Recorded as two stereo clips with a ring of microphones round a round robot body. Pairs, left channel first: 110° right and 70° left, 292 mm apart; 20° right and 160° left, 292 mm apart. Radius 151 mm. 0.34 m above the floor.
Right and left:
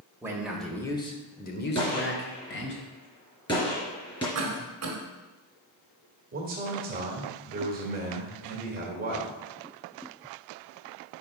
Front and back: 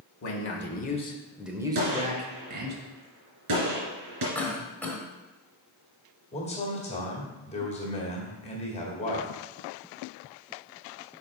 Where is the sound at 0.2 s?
10° right, 1.2 m; by 2.8 s 155° right, 1.8 m.